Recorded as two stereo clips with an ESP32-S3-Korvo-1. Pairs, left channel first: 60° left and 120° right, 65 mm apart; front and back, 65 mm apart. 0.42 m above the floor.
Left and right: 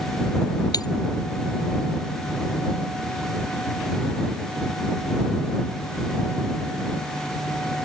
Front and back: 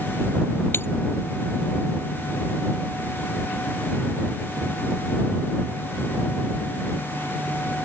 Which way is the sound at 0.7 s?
50° left.